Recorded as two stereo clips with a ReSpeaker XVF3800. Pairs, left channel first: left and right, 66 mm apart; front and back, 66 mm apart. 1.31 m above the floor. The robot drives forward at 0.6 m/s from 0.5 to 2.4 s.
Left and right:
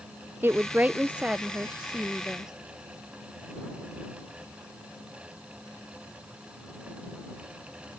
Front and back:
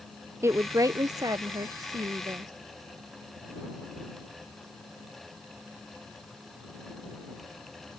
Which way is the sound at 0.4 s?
140° right.